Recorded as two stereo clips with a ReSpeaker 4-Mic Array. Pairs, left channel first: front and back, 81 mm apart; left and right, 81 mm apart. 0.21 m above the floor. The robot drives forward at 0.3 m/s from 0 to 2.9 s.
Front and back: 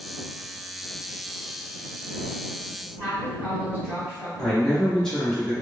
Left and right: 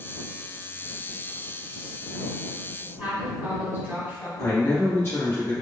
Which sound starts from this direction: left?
A man speaking, at 4.4 s.